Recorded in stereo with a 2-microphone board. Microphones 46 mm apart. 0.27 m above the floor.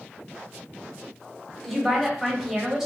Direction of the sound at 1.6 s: Centre (ahead or behind).